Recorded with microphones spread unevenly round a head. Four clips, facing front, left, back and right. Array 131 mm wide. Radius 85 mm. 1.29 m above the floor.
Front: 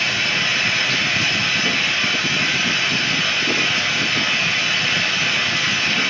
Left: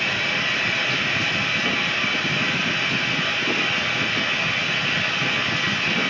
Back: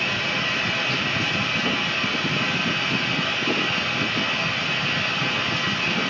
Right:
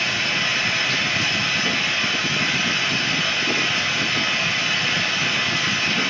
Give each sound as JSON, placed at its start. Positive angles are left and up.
{"t": 0.0, "sound": "running water", "azimuth_deg": -155, "distance_m": 2.0}